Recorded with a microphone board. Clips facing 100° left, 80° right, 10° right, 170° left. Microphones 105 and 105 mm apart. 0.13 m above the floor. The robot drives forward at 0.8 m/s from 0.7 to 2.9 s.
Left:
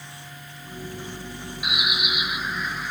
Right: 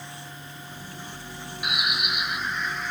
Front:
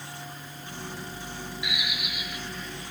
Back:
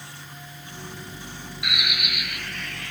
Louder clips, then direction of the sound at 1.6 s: Left 1 dB, back 6 dB; 170° right.